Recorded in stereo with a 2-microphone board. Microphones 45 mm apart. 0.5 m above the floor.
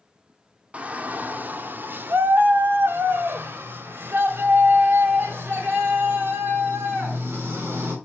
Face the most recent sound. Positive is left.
turn(degrees=-50)  # may be behind; listen again after turning